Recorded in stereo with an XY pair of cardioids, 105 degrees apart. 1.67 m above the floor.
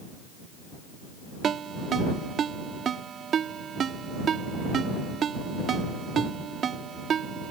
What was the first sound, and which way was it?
A ringtone, 55° right.